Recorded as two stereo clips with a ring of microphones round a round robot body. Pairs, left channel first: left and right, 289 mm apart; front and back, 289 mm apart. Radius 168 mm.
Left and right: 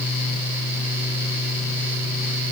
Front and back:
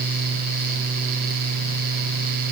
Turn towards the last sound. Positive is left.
No sound to turn to.